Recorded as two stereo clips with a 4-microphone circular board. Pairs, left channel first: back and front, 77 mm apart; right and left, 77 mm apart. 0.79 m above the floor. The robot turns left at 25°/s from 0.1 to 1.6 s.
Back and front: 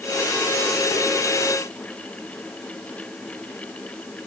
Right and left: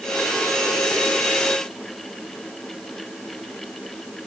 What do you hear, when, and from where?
Only background noise.